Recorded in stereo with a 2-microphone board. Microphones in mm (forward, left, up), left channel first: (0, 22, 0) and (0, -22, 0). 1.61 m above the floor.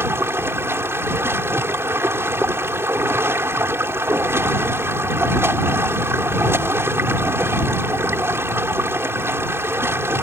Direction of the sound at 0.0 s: 80° right.